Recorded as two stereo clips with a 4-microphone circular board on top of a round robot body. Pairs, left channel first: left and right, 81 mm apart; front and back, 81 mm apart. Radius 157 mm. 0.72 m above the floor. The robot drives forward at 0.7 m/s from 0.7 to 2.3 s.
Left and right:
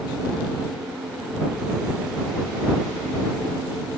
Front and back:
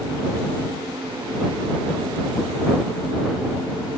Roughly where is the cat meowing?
I don't hear a cat meowing.